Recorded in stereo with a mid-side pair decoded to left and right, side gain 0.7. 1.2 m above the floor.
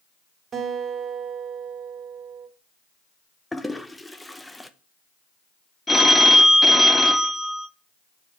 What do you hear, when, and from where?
0.5 s a guitar: 35° right, 1.7 m
3.5 s a toilet flushing: 5° left, 0.6 m
5.9 s a phone ringing: 15° left, 0.8 m